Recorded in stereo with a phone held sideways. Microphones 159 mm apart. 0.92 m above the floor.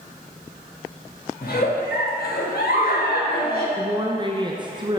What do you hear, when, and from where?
1.4 s a giggle: 70° left (ahead or behind), 1.4 m
3.8 s a woman speaking: 30° right (ahead or behind), 0.5 m